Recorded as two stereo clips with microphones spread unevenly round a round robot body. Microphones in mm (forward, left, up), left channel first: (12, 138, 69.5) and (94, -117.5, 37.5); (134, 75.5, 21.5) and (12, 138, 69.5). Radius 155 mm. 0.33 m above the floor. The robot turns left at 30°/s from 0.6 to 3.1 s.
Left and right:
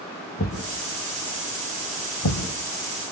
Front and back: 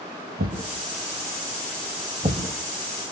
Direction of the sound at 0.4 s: 170° left.